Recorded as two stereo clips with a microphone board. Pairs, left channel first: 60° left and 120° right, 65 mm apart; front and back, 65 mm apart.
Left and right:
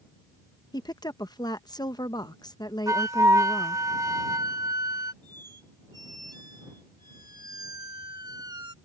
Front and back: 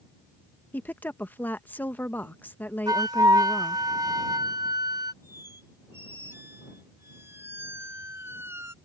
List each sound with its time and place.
0.7 s a woman speaking: 65° left
2.9 s a flute: 160° right
5.2 s a squeak: 125° right